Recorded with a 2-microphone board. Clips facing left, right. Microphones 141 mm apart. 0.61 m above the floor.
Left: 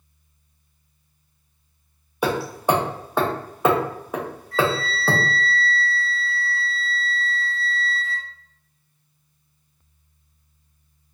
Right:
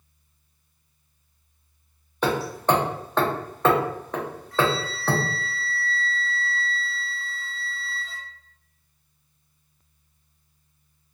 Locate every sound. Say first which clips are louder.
2.2 s hammering: left 1 dB; 10° left (ahead or behind), 0.5 m
4.5 s a flute: left 2 dB; centre (ahead or behind), 0.6 m